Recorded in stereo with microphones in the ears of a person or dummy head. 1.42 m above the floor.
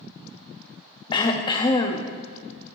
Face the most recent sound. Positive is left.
turn(degrees=30)  # may be behind; listen again after turning